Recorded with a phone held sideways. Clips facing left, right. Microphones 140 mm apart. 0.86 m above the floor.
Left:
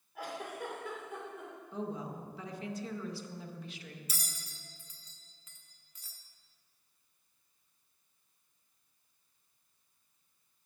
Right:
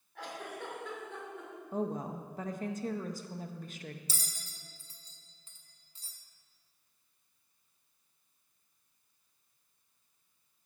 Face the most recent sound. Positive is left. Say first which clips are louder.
# even
turn(degrees=-30)  # may be behind; listen again after turning